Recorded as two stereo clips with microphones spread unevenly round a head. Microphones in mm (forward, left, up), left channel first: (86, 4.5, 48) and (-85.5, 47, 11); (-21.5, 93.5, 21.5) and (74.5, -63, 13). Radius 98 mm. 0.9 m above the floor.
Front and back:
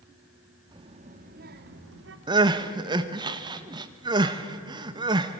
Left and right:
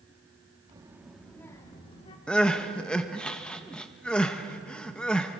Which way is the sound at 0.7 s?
130° right.